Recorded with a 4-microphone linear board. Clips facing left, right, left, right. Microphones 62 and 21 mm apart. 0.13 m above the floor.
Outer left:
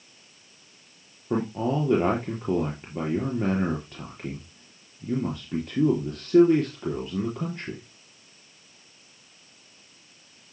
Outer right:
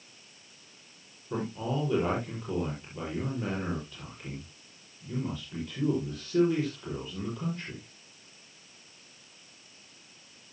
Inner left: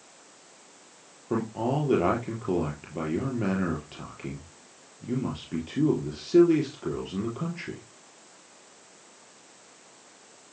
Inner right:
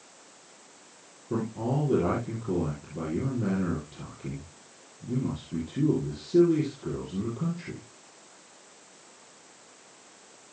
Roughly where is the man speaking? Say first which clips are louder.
Outer left 6 dB, inner left 2 dB; left.